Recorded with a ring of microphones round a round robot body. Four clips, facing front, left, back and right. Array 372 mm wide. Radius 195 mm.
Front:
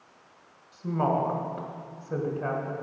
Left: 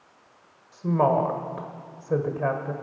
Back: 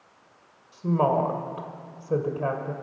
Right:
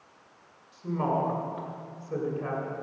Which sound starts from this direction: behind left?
A woman speaking, at 0.7 s.